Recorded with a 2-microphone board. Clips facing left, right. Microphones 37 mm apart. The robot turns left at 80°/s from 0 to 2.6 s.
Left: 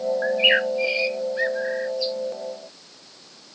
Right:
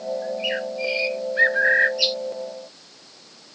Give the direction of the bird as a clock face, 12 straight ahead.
10 o'clock.